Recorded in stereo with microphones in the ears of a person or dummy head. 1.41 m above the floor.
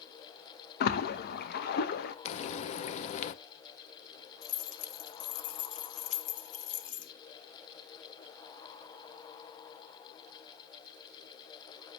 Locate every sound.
0.8 s a splash: 55° left (ahead or behind), 0.8 m
2.2 s frying: 40° left (ahead or behind), 0.5 m
4.4 s keys jangling: 45° left (ahead or behind), 0.8 m